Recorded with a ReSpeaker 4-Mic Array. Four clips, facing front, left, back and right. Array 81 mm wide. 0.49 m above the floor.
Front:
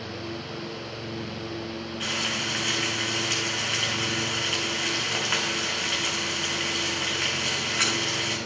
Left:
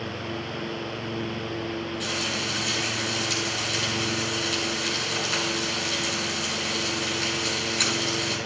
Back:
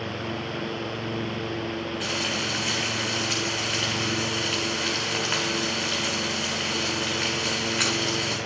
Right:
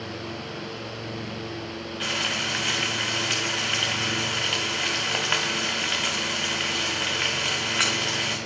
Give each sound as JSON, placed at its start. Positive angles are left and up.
{"t": 2.0, "sound": "frying", "azimuth_deg": -95, "distance_m": 2.0}